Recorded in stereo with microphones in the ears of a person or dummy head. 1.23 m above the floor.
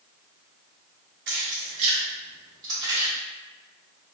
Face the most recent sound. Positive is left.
turn(degrees=-20)  # may be behind; listen again after turning